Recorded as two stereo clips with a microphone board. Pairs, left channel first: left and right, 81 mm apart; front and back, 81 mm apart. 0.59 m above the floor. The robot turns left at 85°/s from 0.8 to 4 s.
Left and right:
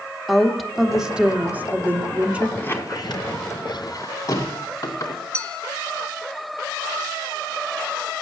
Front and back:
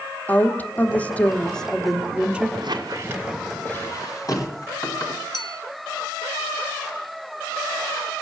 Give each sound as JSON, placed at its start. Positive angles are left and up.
{"t": 0.3, "sound": "a woman speaking", "azimuth_deg": 0, "distance_m": 1.2}
{"t": 2.6, "sound": "a squeak", "azimuth_deg": 165, "distance_m": 2.5}
{"t": 5.3, "sound": "a clink", "azimuth_deg": 15, "distance_m": 0.9}